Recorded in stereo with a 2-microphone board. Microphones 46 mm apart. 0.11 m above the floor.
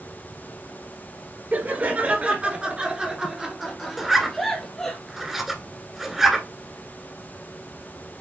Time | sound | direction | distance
1.5 | laughter | 40° right (ahead or behind) | 1.6 m
4.0 | a zipper | 10° right (ahead or behind) | 1.7 m